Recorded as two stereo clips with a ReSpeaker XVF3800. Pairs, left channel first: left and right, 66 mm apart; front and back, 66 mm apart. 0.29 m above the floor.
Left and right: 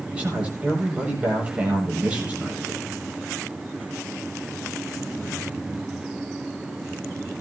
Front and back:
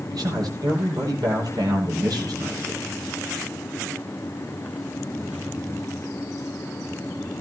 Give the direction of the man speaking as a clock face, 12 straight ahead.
5 o'clock.